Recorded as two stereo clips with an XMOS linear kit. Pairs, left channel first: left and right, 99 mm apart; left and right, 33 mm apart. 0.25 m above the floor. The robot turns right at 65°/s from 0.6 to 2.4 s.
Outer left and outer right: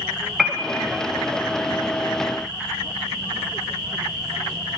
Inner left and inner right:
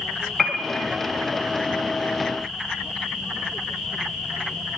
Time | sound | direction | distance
0.4 | a piano | 5° right (ahead or behind) | 0.6 m